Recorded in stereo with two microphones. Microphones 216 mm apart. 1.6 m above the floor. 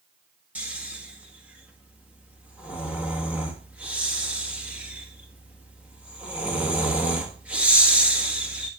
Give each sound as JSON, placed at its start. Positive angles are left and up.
{"t": 0.6, "sound": "snoring", "side_deg": -5, "distance_m": 1.5}